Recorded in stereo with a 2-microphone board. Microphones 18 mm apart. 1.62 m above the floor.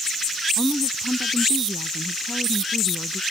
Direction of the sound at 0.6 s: 10° right (ahead or behind).